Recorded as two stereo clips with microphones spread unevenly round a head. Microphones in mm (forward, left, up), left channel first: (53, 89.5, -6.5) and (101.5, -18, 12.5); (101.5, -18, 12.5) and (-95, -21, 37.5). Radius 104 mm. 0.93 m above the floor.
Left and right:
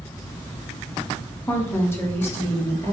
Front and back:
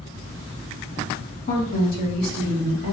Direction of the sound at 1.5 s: 45° left.